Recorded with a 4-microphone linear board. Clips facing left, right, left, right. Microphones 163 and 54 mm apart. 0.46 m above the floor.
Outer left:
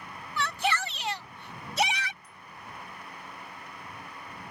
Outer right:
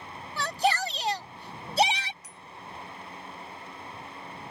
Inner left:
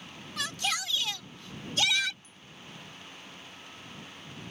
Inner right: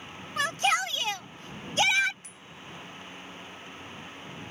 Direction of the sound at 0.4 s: 35° right (ahead or behind).